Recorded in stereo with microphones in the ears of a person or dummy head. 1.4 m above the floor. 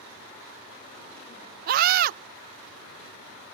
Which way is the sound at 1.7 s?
50° right (ahead or behind).